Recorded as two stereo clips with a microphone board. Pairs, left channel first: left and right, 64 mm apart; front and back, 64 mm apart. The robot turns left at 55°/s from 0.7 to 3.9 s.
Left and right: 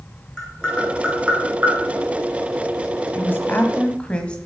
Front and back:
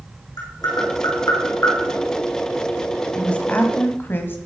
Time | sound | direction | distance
0.4 | tapping | 15° left | 4 m
3.1 | a woman speaking | 70° left | 1.4 m